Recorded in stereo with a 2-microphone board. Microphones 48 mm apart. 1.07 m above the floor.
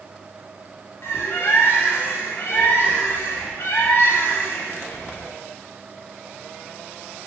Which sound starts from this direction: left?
A bird, at 1.0 s.